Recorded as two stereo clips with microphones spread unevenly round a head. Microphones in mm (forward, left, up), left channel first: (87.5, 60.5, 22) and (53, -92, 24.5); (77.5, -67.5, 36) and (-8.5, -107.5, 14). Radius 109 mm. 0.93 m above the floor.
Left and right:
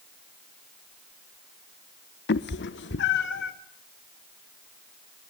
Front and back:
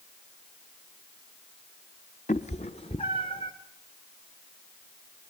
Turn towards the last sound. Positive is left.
turn(degrees=95)